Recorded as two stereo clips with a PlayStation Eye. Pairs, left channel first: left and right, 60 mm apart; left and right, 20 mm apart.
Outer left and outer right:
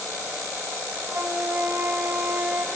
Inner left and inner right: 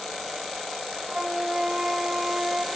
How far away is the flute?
About 1.2 m.